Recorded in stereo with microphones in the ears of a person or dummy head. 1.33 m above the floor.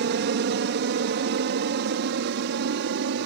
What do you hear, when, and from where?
0.0 s an aircraft: 60° right (ahead or behind)